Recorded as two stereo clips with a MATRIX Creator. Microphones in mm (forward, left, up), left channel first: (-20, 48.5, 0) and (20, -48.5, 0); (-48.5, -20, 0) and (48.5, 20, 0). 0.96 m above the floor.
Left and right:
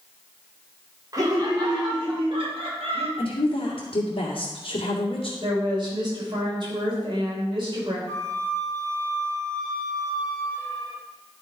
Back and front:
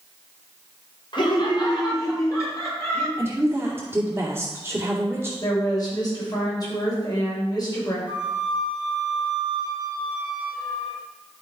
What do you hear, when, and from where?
1.1 s laughter: 120° right, 3 m; by 3.1 s 95° right, 3.5 m
3.2 s a woman speaking: 95° left, 2 m
5.4 s a woman speaking: 105° right, 4.5 m
8.1 s a flute: 120° right, 2.5 m